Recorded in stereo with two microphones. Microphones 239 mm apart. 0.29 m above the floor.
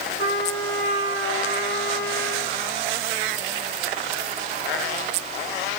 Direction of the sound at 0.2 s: 85° left.